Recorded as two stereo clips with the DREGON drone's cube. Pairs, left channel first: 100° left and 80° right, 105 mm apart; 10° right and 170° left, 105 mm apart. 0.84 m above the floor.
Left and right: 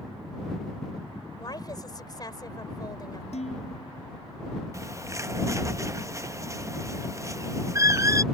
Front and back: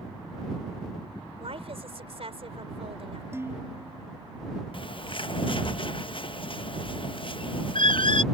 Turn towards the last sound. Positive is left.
turn(degrees=-25)